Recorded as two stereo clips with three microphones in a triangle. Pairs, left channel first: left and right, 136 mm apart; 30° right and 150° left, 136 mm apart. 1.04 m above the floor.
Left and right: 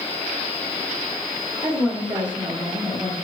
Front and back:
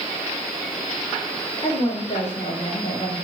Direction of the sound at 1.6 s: 40° right.